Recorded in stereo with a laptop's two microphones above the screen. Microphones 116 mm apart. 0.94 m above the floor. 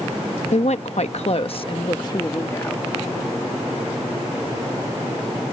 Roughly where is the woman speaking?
Left.